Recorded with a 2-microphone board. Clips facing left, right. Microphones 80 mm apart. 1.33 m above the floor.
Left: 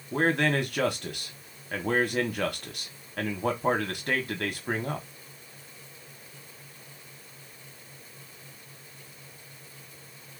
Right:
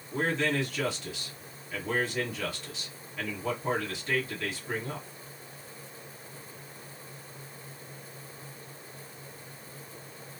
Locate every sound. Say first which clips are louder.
0.1 s a man speaking: left 4 dB; 50° left (ahead or behind), 1.1 m